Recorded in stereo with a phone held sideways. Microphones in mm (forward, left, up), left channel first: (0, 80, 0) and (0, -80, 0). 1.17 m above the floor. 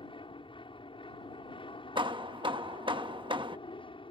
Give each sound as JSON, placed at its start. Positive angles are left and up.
{"t": 0.0, "sound": "an aircraft", "side_deg": 30}
{"t": 1.9, "sound": "hammering", "side_deg": -30}